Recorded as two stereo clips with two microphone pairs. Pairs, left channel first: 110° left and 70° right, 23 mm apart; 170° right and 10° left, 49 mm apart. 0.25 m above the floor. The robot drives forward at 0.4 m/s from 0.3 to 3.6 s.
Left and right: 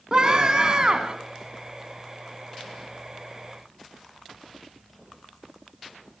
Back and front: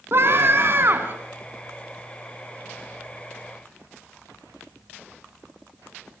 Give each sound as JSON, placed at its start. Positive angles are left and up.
{"t": 0.1, "sound": "a scream", "azimuth_deg": -20, "distance_m": 2.0}